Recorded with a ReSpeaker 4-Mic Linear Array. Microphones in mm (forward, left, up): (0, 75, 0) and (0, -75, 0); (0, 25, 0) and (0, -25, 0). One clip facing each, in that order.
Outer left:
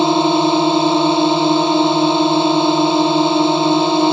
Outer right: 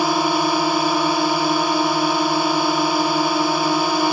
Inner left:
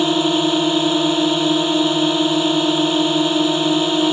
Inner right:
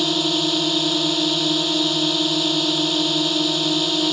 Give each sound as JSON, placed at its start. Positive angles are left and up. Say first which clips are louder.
{"t": 0.0, "sound": "a drone", "louder": "outer left 6 dB, inner left 5 dB", "side_deg": 25}